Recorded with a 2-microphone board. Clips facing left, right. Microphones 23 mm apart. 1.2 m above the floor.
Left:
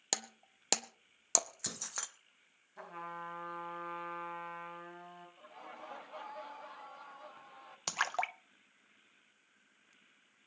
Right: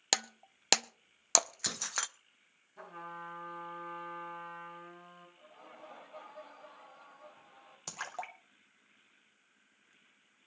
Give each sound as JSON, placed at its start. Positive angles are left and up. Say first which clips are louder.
{"t": 0.1, "sound": "breaking glass", "louder": "right 6 dB", "side_deg": -35, "distance_m": 0.5}
{"t": 2.8, "sound": "a trumpet", "louder": "left 1 dB", "side_deg": 25, "distance_m": 3.5}
{"t": 5.4, "sound": "laughter", "louder": "left 4 dB", "side_deg": 45, "distance_m": 1.6}
{"t": 7.9, "sound": "a splash", "louder": "left 7 dB", "side_deg": 45, "distance_m": 0.6}